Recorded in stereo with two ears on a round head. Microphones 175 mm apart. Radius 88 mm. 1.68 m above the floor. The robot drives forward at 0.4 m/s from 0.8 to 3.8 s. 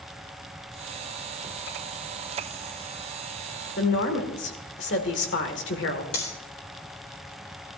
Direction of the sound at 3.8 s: 60° left (ahead or behind).